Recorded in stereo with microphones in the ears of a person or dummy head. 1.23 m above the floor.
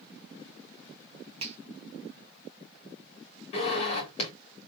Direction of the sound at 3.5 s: 45° left (ahead or behind).